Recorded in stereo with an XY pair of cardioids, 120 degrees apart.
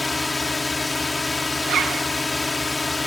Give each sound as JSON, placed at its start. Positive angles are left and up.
{"t": 0.0, "sound": "a drone", "azimuth_deg": 15}
{"t": 1.6, "sound": "a zipper", "azimuth_deg": -60}